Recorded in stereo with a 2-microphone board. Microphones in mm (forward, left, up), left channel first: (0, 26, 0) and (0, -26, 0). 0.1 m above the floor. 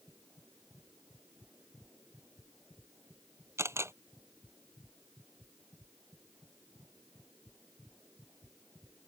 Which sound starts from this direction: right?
A camera shutter, at 3.6 s.